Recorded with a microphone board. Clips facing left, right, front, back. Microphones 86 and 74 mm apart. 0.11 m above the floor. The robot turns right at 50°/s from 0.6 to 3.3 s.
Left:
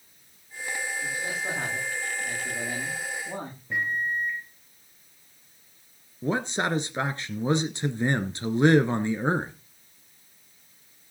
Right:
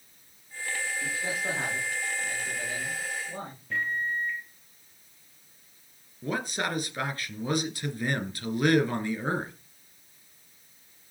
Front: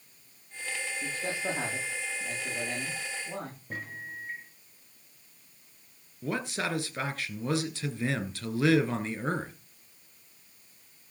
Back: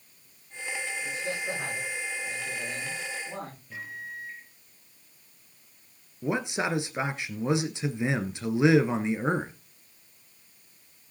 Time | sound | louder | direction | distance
1.0 | a man speaking | even, front 2 dB | 35° right | 8.5 m
3.7 | a microwave | left 2 dB, front 1 dB | 20° left | 1.8 m
6.2 | a man speaking | left 4 dB, back 4 dB | 125° left | 1.4 m